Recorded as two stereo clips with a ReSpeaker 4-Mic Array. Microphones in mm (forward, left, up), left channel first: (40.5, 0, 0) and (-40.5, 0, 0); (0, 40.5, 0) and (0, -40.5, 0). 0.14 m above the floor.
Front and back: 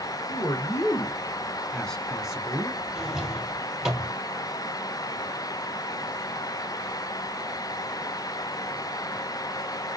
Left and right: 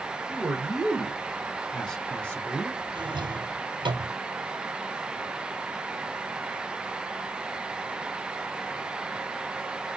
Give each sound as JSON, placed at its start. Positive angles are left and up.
{"t": 0.3, "sound": "a man speaking", "azimuth_deg": -15, "distance_m": 1.9}
{"t": 3.0, "sound": "a drawer", "azimuth_deg": -90, "distance_m": 1.7}